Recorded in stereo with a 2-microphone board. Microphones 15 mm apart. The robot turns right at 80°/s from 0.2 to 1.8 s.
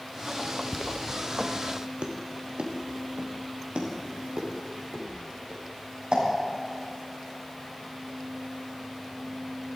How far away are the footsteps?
About 1.0 m.